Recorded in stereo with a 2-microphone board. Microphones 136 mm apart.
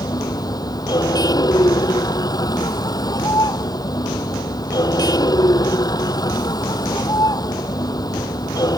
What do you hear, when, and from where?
0.0 s a vehicle: 30° left (ahead or behind)